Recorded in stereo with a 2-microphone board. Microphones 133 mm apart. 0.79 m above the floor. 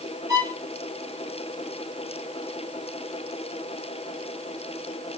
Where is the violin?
25° right (ahead or behind), 1.6 m.